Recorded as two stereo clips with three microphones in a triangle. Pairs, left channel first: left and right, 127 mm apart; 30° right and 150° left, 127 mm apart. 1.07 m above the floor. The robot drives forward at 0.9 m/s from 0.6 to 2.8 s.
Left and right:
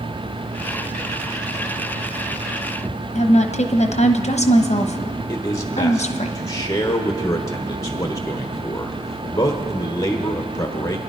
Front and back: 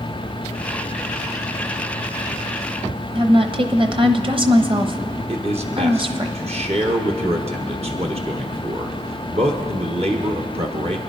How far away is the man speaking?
About 1.1 m.